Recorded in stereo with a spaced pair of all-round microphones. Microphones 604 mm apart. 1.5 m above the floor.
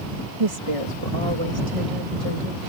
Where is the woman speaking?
65° right (ahead or behind).